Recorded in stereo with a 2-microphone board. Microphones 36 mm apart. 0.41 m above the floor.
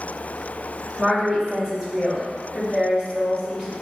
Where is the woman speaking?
25° right (ahead or behind), 1.5 m; by 3.7 s 10° right (ahead or behind), 3 m.